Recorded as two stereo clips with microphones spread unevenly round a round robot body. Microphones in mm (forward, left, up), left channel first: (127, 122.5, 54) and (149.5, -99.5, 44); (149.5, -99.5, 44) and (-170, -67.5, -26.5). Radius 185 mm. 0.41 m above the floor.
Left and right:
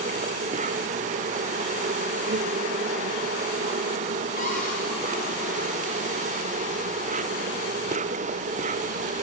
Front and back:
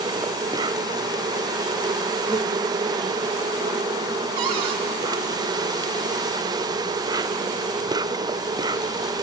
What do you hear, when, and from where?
0.0 s an insect: 125° right, 0.8 m
4.4 s a cupboard door: 160° left, 3 m